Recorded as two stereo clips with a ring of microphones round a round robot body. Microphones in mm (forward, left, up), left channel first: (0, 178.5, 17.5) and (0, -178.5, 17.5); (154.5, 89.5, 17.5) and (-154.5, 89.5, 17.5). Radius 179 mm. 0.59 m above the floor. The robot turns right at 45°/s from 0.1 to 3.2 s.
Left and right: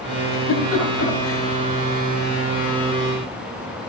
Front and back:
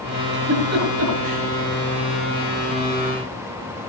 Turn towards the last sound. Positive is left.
turn(degrees=-105)